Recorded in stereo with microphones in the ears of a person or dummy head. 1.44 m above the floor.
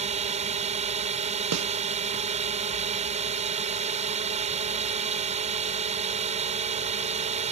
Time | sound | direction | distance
0.0 | a drone | 35° right (ahead or behind) | ?
1.5 | a snare drum | 85° right | ?